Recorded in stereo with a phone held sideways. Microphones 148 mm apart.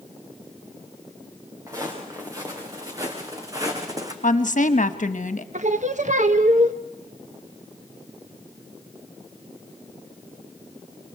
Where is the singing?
60° right (ahead or behind), 0.9 m.